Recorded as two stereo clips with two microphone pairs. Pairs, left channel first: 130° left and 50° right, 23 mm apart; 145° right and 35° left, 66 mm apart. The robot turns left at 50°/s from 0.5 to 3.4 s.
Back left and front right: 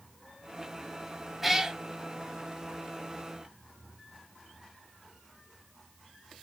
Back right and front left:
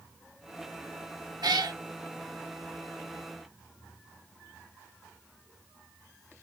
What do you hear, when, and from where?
1.4 s a cat meowing: 30° left, 0.6 m; by 1.8 s 10° left, 0.6 m